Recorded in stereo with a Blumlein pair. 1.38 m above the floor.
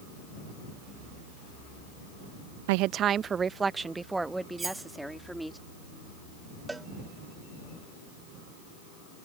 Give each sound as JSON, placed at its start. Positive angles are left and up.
{"t": 2.7, "sound": "a woman speaking", "azimuth_deg": -50}
{"t": 4.6, "sound": "cutlery clinking", "azimuth_deg": -15}
{"t": 6.7, "sound": "a cowbell", "azimuth_deg": -10}